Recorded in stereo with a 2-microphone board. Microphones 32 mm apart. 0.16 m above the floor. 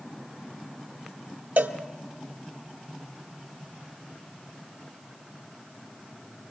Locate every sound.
1.6 s a cowbell: 75° right (ahead or behind), 1.0 m